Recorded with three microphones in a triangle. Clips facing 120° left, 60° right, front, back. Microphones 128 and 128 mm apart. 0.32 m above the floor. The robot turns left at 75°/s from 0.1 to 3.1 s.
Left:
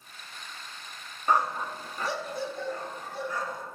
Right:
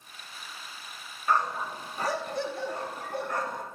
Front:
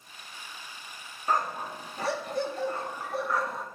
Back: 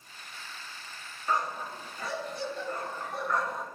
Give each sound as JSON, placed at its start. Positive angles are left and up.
{"t": 1.3, "sound": "a dog barking", "azimuth_deg": 50, "distance_m": 1.0}